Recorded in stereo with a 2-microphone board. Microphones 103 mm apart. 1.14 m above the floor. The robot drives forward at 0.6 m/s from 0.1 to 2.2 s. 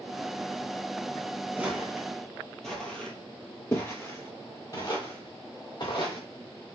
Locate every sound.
1.6 s footsteps: 15° right (ahead or behind), 1.8 m; by 6.2 s 55° left (ahead or behind), 3 m